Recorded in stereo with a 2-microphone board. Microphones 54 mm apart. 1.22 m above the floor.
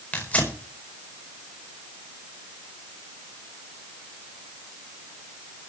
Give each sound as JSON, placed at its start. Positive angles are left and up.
{"t": 0.1, "sound": "tearing paper", "side_deg": 30, "distance_m": 5.0}